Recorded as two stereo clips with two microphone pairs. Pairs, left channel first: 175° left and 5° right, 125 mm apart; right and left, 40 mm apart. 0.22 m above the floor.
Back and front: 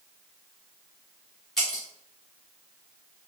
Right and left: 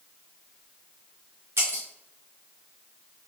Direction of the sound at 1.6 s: 90° left.